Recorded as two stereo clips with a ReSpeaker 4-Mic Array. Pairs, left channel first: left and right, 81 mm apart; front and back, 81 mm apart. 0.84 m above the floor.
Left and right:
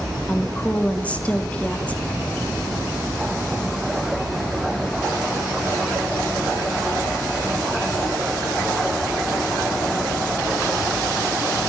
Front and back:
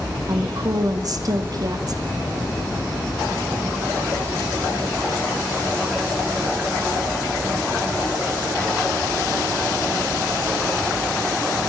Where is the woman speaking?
160° left, 1.9 m.